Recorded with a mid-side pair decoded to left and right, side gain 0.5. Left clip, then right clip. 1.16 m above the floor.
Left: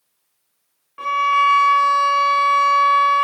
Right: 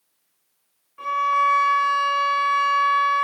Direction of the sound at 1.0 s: 35° left.